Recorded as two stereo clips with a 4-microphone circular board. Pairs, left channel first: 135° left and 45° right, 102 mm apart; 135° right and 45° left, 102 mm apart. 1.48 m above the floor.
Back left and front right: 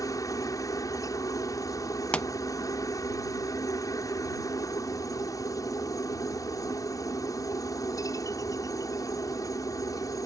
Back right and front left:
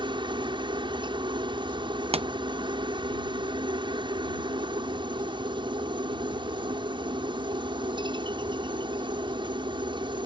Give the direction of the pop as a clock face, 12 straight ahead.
10 o'clock.